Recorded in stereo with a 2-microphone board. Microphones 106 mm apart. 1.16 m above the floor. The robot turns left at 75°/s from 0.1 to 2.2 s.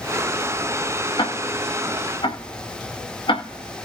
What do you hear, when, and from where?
1.2 s ticking: 50° left (ahead or behind), 1.9 m; by 3.9 s 55° left (ahead or behind), 1.9 m